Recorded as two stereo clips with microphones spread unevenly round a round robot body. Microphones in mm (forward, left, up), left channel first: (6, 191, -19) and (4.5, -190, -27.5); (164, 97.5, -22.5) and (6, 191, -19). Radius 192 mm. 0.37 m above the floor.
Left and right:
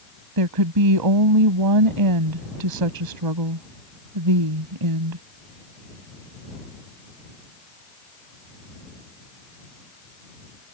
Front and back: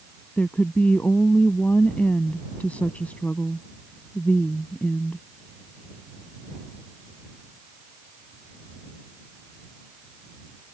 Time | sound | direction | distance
0.4 | a woman speaking | 115° right | ?